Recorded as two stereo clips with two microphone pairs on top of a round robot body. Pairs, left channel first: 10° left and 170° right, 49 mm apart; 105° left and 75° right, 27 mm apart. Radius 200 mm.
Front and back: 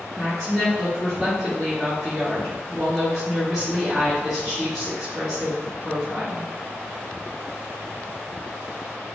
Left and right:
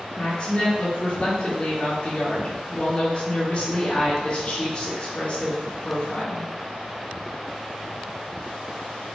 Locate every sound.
0.2 s a woman speaking: 105° left, 1.3 m